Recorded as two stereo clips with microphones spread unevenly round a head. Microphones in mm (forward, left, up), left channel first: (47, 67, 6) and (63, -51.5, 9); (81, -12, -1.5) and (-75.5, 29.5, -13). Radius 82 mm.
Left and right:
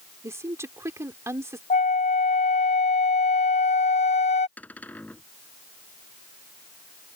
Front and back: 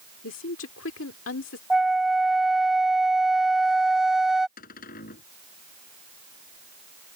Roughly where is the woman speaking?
Ahead.